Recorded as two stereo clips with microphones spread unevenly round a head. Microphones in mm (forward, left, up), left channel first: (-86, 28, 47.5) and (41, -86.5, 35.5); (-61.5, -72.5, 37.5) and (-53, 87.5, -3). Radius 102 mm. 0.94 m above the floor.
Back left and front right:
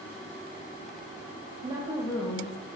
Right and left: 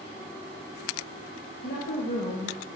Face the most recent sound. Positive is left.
turn(degrees=170)